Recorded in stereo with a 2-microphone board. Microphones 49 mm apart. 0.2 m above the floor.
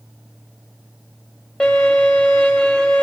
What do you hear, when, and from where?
1.6 s a violin: 15° left (ahead or behind), 4 m